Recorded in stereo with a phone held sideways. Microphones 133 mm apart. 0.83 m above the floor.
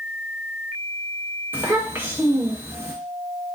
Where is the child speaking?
15° right (ahead or behind), 1.0 m.